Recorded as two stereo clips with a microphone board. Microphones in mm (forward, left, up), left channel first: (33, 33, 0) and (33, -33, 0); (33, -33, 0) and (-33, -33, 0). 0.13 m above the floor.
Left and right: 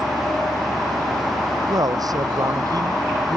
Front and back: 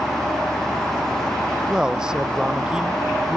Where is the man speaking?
100° right.